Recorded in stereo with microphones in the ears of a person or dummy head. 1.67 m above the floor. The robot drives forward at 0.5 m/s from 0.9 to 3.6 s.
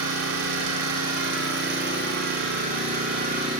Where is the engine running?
65° right (ahead or behind), 1.6 m; by 3.6 s 40° right (ahead or behind), 2.5 m.